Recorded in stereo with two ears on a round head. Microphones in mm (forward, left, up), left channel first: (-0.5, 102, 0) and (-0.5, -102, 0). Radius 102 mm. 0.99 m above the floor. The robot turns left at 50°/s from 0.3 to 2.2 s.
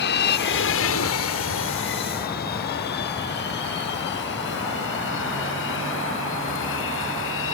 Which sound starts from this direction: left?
An aircraft, at 0.0 s.